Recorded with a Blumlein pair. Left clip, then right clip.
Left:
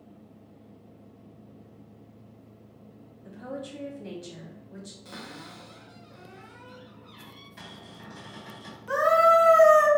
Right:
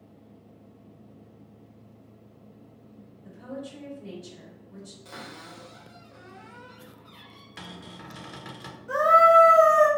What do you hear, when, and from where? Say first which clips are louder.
3.2 s a woman speaking: left 1 dB; 25° left, 2.0 m
5.0 s a cupboard door: right 1 dB; straight ahead, 1.2 m
7.6 s a cupboard door: right 5 dB; 55° right, 1.0 m
8.9 s a scream: right 3 dB; 30° left, 1.4 m